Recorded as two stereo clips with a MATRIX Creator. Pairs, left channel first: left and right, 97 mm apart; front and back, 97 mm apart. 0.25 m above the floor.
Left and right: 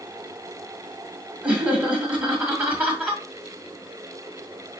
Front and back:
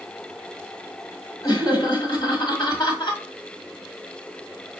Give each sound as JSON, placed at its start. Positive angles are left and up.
{"t": 1.4, "sound": "laughter", "azimuth_deg": -15, "distance_m": 2.5}